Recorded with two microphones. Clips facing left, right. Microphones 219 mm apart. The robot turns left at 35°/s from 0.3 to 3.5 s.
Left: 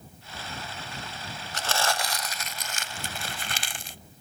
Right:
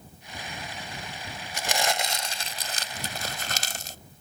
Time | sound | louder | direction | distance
1.5 | crumpling | right 1 dB | 20° right | ?